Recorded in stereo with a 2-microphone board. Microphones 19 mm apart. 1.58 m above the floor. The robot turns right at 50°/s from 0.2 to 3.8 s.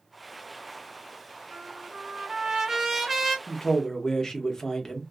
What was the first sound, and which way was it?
A trumpet, 85° right.